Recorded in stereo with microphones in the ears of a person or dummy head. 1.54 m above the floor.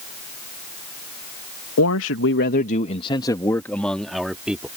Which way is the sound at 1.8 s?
80° left.